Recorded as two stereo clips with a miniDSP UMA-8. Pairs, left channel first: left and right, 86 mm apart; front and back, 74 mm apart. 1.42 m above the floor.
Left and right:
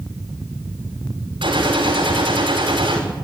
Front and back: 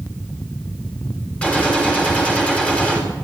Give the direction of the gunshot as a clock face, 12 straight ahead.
2 o'clock.